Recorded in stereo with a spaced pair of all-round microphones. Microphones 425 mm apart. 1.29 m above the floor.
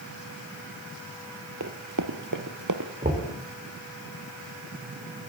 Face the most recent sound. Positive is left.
turn(degrees=-20)  # may be behind; listen again after turning